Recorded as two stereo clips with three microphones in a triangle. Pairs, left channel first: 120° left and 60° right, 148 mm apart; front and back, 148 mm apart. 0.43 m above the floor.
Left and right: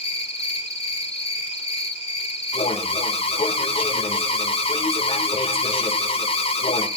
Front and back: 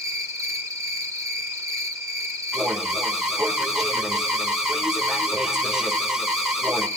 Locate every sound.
0.0 s an insect: 125° left, 1.6 m
2.5 s an alarm: 95° left, 1.3 m